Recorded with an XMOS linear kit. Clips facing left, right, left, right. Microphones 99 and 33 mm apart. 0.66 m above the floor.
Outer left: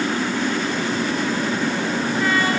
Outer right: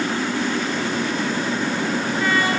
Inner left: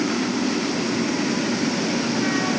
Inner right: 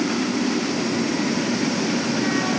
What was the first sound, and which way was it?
Only background noise.